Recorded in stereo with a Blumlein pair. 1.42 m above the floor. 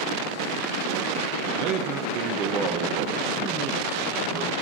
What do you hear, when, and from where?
1.6 s a man speaking: 35° right, 1.3 m